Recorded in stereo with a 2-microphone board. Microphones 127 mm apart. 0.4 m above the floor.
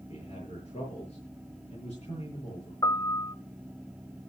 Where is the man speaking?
50° left (ahead or behind), 8.5 m.